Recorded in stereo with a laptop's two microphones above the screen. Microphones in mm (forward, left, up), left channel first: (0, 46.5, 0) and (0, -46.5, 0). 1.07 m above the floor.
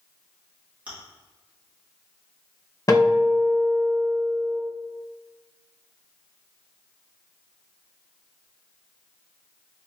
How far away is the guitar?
About 0.9 m.